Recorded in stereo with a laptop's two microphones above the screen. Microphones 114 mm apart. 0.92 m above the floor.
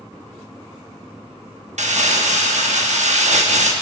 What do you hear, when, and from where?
1.8 s crumpling: 80° right, 1.0 m